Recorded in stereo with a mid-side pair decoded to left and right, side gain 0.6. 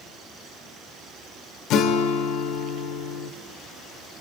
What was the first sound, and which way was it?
A guitar, 60° left.